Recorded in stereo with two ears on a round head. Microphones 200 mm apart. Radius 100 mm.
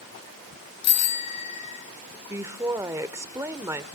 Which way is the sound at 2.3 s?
15° right (ahead or behind).